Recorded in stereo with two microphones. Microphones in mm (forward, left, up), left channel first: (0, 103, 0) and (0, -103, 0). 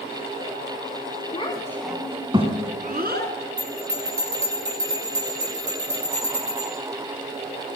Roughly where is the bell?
Right.